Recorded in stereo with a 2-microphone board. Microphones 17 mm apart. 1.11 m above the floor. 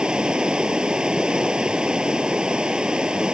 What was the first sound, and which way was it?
Running water, 65° right (ahead or behind).